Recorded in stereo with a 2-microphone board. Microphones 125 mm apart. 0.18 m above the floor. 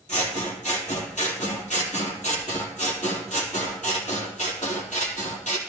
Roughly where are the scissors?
Left.